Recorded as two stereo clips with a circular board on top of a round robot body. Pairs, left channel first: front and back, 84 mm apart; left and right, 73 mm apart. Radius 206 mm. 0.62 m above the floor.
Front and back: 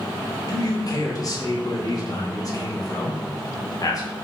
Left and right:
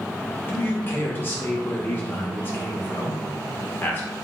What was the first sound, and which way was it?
A man speaking, 35° left.